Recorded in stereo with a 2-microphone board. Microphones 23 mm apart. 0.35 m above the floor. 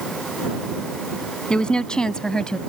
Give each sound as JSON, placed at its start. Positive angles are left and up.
{"t": 1.5, "sound": "a woman speaking", "side_deg": 40}